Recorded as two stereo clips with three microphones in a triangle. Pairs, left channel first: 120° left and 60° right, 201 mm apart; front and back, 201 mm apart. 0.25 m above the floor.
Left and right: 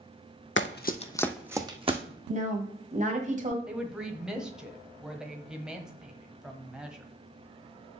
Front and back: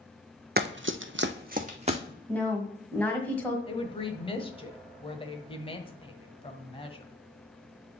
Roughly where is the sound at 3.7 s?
Ahead left.